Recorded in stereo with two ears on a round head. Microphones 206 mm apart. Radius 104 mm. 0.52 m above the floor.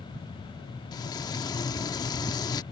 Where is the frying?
20° left (ahead or behind).